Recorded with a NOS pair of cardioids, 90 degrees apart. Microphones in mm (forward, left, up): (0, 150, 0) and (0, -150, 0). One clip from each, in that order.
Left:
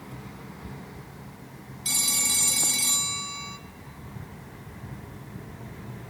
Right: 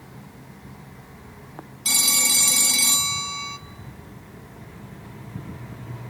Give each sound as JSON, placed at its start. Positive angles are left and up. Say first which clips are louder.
{"t": 1.9, "sound": "a phone ringing", "louder": "right 6 dB", "azimuth_deg": -25, "distance_m": 0.6}